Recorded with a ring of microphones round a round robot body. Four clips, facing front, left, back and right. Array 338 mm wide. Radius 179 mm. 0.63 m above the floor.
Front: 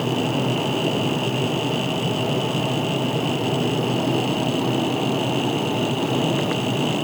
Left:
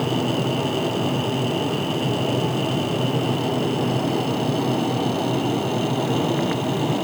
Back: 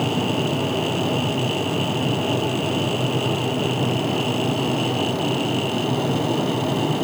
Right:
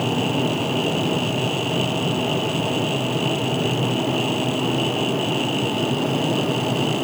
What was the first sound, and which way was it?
Only background noise.